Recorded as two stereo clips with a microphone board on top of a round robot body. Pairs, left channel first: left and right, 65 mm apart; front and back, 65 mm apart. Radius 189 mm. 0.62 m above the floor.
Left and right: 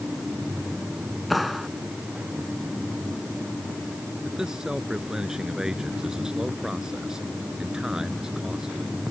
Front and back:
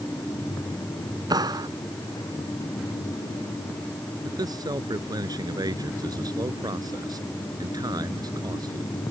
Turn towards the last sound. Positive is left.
turn(degrees=-170)